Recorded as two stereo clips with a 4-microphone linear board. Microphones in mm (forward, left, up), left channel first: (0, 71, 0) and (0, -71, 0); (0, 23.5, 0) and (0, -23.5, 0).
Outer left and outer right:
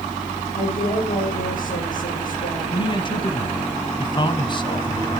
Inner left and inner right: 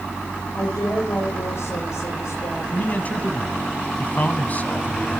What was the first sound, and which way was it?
A woman speaking, 75° left (ahead or behind).